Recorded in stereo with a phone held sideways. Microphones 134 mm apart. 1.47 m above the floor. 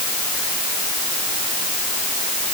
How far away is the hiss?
I don't hear a hiss.